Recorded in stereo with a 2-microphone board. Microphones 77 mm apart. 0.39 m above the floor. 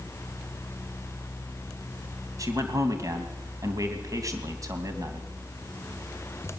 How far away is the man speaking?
About 3 m.